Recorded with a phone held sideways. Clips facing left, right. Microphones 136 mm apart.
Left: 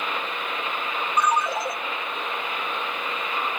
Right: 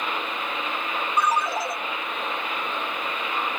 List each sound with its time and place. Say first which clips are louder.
1.2 s a ringtone: left 1 dB; centre (ahead or behind), 0.9 m